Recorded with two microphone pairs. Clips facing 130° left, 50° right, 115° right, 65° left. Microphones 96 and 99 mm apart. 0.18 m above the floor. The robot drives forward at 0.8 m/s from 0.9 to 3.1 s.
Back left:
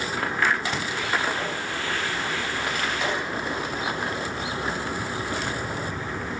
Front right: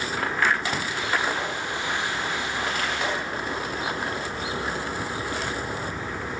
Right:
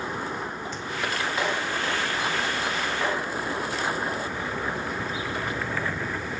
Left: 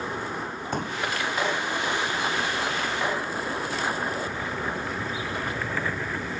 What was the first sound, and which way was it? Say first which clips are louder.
A pop: even, left 4 dB; 30° left.